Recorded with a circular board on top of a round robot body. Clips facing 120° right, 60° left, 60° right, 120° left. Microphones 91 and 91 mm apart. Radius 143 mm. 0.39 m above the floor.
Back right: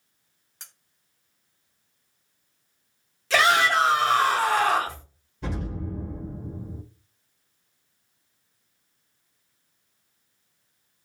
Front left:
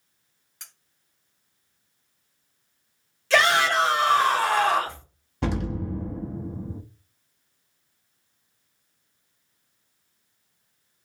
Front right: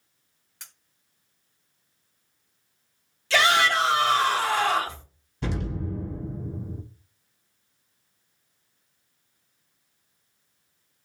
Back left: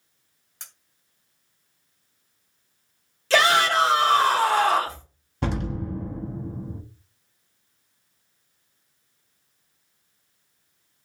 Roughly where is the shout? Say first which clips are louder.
Even, back left 2 dB; behind left.